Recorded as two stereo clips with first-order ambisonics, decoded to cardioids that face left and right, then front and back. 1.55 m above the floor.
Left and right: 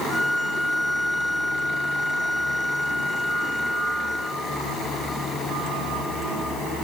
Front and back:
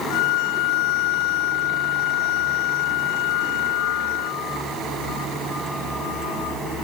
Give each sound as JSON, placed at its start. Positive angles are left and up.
{"t": 0.1, "sound": "a violin", "azimuth_deg": 5}